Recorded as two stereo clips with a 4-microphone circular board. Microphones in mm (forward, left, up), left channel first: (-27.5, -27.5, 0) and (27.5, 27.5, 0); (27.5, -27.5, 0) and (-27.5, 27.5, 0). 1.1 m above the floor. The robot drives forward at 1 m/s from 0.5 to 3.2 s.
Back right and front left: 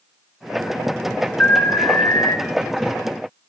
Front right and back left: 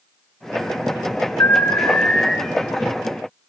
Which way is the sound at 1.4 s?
70° right.